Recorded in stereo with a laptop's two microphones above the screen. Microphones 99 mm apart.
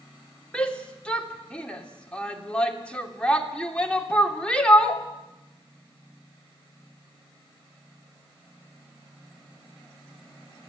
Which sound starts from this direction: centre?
A shout, at 0.5 s.